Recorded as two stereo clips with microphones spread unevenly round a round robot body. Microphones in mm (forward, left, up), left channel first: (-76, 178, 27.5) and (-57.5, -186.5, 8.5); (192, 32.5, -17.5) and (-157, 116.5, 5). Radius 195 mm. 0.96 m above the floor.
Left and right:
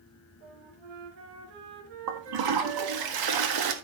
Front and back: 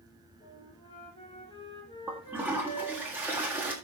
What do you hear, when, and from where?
0.4 s a flute: 90° right, 3.5 m
2.1 s a toilet flushing: 105° right, 1.6 m